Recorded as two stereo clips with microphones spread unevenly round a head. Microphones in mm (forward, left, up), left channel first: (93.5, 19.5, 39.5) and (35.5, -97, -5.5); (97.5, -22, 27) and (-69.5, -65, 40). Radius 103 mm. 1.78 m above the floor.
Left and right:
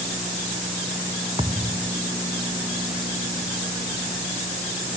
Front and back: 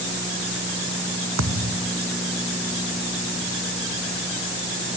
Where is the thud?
175° left.